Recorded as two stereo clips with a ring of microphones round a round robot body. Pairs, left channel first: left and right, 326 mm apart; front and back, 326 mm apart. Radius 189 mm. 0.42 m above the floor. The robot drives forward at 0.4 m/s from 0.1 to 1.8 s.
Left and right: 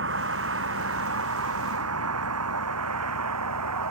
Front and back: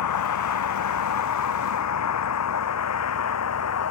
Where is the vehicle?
30° right; by 3.9 s 40° right.